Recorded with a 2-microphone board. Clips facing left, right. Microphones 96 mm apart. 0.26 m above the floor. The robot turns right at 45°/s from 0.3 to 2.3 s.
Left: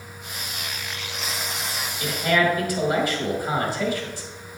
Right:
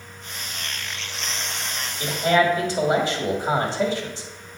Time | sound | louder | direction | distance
2.0 | a man speaking | right 2 dB | 25° right (ahead or behind) | 1.3 m